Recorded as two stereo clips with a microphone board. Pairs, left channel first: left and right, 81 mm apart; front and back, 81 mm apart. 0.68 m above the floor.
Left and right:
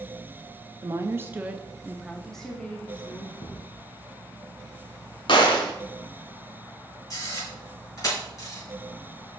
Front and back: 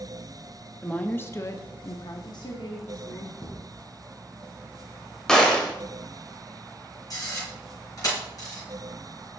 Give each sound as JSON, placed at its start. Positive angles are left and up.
{"t": 0.8, "sound": "a woman speaking", "azimuth_deg": -75, "distance_m": 0.6}
{"t": 3.4, "sound": "a thud", "azimuth_deg": 65, "distance_m": 2.5}
{"t": 5.3, "sound": "a gunshot", "azimuth_deg": 80, "distance_m": 1.1}
{"t": 7.1, "sound": "a camera shutter", "azimuth_deg": 45, "distance_m": 4.0}